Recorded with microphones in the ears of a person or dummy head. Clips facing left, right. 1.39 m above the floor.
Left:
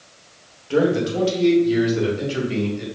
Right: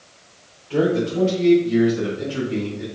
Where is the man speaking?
80° left, 1.7 m; by 2.9 s 65° left (ahead or behind), 2.5 m.